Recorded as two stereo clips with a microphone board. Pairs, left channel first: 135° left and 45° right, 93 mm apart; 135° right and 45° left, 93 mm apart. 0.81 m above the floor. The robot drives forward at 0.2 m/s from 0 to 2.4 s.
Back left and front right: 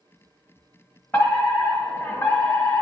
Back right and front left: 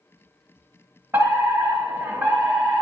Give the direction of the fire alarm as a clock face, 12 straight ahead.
9 o'clock.